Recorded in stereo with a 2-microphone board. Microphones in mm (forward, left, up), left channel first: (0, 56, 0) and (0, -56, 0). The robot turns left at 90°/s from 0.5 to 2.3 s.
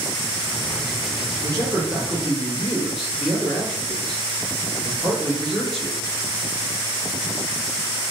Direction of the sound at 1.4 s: 110° right.